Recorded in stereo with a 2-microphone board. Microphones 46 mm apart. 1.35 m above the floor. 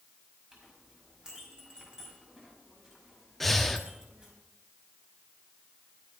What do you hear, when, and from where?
0.5 s a clink: 15° right (ahead or behind), 5 m
3.4 s breathing: 5° left (ahead or behind), 1.0 m